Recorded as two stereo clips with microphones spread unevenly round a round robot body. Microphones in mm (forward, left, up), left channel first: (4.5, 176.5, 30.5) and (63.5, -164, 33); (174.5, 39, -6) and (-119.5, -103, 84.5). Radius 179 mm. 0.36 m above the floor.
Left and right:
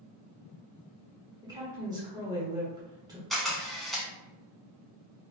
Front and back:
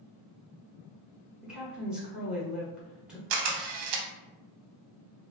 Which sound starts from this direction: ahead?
A woman speaking, at 1.4 s.